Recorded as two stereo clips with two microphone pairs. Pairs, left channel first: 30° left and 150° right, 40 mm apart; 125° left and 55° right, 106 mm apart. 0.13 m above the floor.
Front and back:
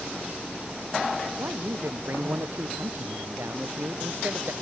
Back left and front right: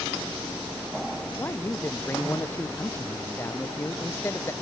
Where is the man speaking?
170° right.